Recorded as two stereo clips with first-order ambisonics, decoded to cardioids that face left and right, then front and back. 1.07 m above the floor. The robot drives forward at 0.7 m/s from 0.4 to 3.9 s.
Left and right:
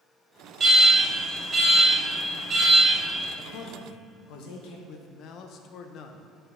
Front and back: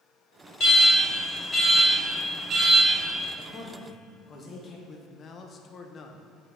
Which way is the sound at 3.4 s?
50° left.